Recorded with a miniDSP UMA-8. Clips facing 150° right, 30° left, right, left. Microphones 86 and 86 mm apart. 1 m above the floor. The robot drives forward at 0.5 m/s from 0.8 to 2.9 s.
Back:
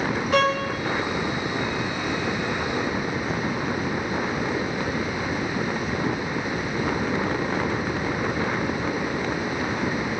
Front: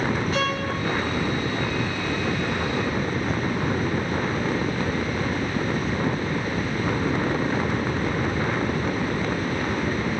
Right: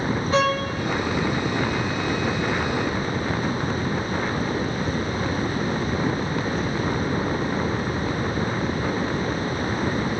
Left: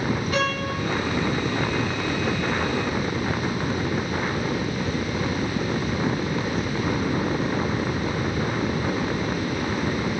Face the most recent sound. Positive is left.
turn(degrees=-160)